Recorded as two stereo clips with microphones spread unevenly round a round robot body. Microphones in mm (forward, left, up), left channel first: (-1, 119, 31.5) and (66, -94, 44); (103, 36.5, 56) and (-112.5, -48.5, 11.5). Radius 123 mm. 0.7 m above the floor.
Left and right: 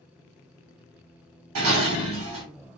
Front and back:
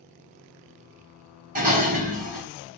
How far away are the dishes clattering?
About 1.2 m.